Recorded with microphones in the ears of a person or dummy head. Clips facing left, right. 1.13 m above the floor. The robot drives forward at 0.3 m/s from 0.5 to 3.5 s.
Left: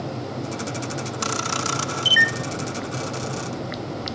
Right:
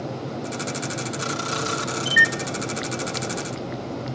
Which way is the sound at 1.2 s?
60° left (ahead or behind).